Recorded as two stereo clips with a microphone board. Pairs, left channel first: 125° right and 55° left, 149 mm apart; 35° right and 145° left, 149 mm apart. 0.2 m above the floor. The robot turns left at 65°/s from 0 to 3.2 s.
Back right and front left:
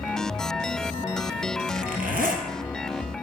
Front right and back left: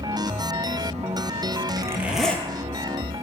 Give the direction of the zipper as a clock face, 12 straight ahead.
9 o'clock.